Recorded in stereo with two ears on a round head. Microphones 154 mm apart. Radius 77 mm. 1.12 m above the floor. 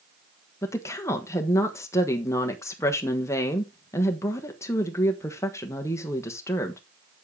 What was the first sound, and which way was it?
A woman speaking, 15° left (ahead or behind).